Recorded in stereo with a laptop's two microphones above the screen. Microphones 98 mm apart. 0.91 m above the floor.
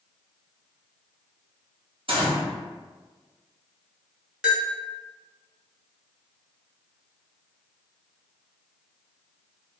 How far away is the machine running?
I don't hear a machine running.